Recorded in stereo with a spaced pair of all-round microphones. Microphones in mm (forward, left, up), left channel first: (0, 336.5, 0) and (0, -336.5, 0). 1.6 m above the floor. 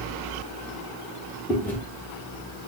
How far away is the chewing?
About 1.0 m.